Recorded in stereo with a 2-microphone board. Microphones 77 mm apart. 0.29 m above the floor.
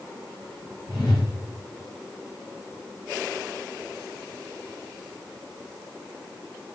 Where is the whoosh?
70° left (ahead or behind), 6.5 m.